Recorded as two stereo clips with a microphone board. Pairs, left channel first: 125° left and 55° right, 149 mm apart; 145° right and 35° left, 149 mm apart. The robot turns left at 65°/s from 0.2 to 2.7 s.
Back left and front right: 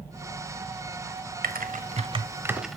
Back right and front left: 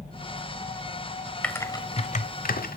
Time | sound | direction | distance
1.4 | typing on a keyboard | 65° right | 0.8 m